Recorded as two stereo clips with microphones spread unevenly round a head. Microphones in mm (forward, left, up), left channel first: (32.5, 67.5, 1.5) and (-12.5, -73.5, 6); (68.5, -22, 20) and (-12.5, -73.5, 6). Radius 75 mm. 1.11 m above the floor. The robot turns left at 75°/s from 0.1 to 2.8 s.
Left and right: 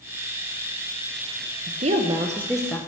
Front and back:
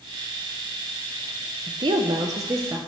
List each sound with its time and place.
1.7 s a woman speaking: 130° right, 0.9 m; by 2.8 s 145° left, 0.9 m